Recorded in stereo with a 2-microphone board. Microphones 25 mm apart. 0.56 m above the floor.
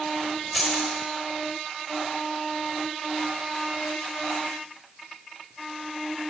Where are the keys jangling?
Centre (ahead or behind), 1.4 m.